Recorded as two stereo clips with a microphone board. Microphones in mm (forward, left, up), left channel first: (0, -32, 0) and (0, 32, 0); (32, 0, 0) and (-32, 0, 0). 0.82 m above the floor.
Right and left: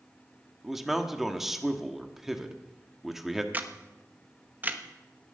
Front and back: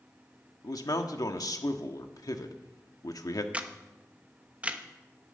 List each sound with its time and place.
0.6 s a man speaking: 5° left, 1.3 m
3.5 s a camera shutter: 130° left, 1.0 m